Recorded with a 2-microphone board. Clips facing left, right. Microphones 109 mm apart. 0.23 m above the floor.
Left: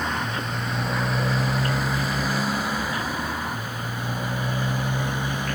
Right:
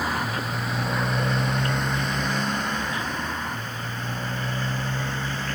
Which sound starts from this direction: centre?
A motorcycle, at 0.0 s.